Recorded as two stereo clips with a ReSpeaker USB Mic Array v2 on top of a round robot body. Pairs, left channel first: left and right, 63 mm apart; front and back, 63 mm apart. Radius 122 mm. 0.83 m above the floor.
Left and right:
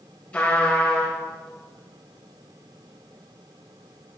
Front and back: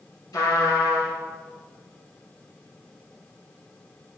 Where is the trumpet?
20° left, 4.5 m.